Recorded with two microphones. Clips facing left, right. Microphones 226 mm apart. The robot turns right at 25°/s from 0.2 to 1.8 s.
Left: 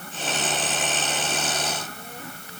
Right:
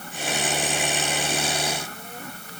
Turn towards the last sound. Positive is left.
No sound to turn to.